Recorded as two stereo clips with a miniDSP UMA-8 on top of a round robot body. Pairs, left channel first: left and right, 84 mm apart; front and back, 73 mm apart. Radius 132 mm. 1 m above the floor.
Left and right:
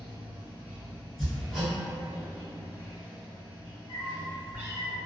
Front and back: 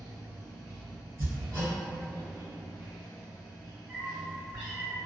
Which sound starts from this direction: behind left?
A cat meowing, at 3.9 s.